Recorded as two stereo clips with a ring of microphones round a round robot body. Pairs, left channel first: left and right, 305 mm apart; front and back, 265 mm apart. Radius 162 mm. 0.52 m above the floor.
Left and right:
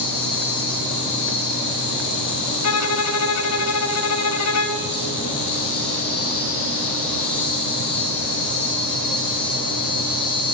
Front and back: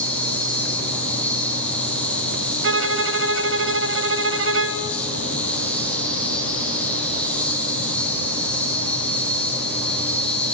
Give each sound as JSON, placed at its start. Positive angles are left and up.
{"t": 0.0, "sound": "an insect", "azimuth_deg": 85, "distance_m": 5.5}
{"t": 2.6, "sound": "a violin", "azimuth_deg": 135, "distance_m": 1.0}